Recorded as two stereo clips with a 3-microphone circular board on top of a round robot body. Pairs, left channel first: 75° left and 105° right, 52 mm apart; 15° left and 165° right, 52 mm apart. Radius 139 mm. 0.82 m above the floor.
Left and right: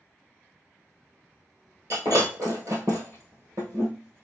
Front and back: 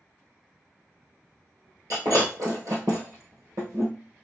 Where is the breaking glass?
145° right, 0.9 m.